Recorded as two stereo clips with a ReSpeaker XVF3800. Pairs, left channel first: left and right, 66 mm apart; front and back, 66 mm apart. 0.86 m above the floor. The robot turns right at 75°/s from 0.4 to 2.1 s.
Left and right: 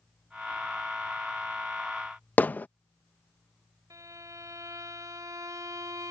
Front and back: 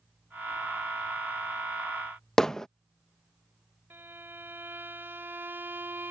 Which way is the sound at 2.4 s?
70° left.